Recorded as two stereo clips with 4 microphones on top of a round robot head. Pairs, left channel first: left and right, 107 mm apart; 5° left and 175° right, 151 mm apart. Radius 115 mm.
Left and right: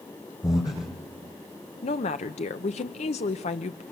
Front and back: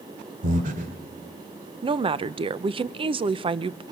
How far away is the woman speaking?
About 0.7 m.